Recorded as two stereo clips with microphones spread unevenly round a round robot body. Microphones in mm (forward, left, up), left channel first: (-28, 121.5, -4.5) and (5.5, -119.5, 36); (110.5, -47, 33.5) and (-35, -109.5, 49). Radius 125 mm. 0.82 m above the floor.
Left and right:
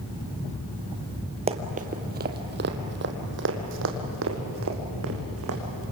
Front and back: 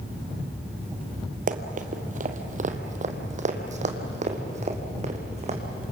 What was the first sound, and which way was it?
Running footsteps, 140° right.